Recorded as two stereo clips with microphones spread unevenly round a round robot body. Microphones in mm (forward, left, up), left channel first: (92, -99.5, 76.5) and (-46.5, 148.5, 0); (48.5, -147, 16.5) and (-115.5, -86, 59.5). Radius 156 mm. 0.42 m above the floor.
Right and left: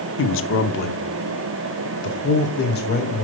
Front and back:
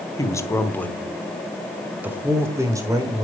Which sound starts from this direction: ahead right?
A man speaking, at 0.2 s.